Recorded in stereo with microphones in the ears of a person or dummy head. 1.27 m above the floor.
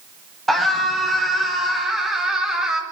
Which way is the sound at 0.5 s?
Centre (ahead or behind).